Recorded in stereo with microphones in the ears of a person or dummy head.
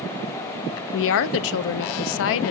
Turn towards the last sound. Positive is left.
turn(degrees=70)  # may be behind; listen again after turning